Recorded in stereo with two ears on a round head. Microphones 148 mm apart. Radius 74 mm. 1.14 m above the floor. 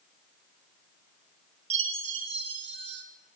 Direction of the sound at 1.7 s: 35° right (ahead or behind).